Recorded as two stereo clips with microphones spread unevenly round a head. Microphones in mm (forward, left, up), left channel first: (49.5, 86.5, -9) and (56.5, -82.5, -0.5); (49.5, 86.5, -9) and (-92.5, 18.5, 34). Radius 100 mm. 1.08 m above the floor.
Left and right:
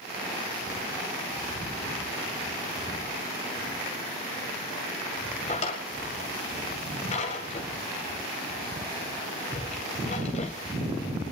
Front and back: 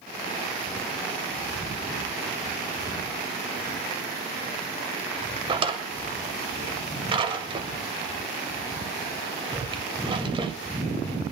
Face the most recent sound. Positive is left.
turn(degrees=155)